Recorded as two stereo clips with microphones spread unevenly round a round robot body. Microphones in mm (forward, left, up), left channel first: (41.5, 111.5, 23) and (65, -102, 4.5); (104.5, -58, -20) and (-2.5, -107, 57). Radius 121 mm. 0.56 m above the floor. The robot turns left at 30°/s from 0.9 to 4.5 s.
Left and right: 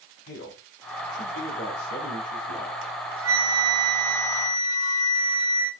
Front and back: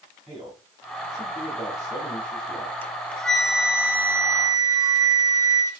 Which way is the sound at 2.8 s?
55° right.